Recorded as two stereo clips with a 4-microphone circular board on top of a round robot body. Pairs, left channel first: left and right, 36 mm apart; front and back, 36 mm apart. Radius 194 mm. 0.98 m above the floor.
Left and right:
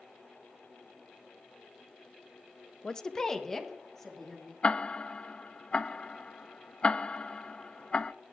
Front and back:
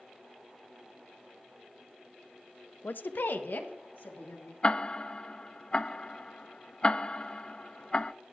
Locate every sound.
2.8 s a woman speaking: 25° left, 0.5 m; by 4.5 s 10° left, 2.5 m
4.6 s ticking: 45° left, 0.6 m